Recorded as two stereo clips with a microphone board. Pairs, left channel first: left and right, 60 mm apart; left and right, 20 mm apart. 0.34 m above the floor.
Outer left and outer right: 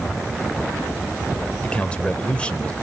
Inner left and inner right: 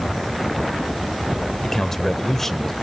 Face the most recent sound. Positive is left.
turn(degrees=20)  # may be behind; listen again after turning